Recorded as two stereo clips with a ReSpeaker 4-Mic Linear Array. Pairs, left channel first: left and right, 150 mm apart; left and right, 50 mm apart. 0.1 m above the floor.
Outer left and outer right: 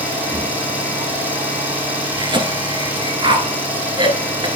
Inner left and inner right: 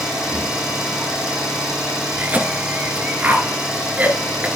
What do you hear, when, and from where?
0.0 s an engine running: 10° right (ahead or behind), 1.9 m
2.2 s a cough: 30° right (ahead or behind), 1.2 m